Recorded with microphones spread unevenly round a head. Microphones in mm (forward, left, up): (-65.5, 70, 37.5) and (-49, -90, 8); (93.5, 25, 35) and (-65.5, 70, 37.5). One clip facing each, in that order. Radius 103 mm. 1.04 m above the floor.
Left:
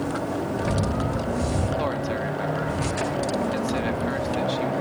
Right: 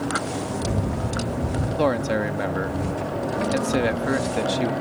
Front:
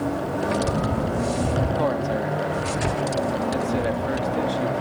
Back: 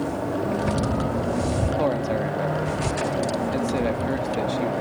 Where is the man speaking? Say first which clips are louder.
Right 5 dB, even; 115° right.